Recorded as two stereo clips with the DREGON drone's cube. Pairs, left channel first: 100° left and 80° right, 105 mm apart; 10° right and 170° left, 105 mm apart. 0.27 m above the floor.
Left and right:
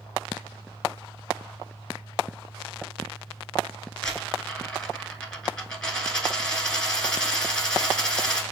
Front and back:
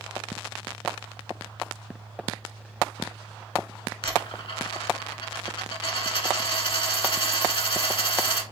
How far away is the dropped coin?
About 0.8 m.